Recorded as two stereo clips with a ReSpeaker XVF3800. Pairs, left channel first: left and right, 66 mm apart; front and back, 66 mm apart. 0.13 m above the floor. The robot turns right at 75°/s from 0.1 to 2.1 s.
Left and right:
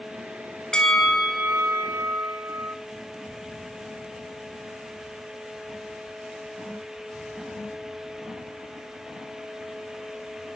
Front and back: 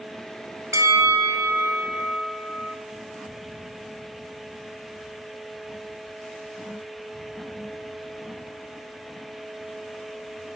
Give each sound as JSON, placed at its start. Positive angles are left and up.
{"t": 0.7, "sound": "a bell", "azimuth_deg": 165, "distance_m": 0.6}